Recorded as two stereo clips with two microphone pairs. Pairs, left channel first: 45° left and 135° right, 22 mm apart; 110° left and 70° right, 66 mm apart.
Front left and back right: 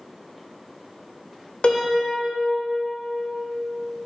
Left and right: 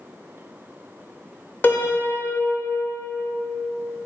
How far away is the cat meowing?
No cat meowing in this recording.